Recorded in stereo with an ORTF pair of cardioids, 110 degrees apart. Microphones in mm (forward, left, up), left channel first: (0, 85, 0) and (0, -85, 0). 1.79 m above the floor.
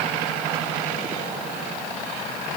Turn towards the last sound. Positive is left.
No sound to turn to.